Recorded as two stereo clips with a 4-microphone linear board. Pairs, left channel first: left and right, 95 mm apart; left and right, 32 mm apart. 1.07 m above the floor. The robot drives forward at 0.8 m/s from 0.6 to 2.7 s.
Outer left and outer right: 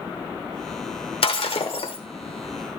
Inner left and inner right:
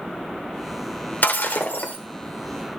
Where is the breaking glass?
75° left (ahead or behind), 1.6 m; by 2.0 s 70° left (ahead or behind), 1.7 m.